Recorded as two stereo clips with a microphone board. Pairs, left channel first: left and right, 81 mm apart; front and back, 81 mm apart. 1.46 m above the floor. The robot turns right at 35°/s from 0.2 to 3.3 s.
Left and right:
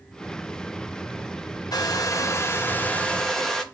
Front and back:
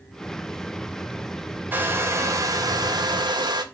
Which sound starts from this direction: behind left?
A hair dryer, at 1.7 s.